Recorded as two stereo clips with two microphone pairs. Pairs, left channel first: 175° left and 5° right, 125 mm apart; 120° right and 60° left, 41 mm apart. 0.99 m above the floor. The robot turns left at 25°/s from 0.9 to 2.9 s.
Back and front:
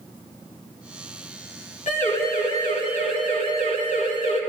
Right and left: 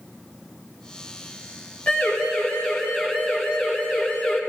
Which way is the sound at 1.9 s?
175° right.